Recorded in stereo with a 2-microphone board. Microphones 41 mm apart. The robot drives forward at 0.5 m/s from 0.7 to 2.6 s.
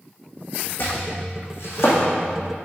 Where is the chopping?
55° left (ahead or behind), 3 m; by 2.0 s 70° left (ahead or behind), 2.5 m.